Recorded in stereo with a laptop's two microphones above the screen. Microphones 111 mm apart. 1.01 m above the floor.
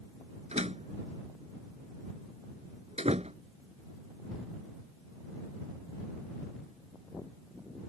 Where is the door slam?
65° right (ahead or behind).